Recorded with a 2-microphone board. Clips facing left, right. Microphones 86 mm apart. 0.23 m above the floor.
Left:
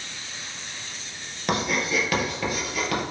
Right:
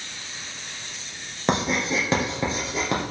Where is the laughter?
I don't hear laughter.